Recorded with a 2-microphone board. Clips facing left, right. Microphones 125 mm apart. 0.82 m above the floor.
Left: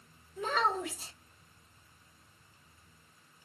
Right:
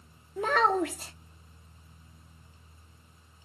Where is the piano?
No piano in this recording.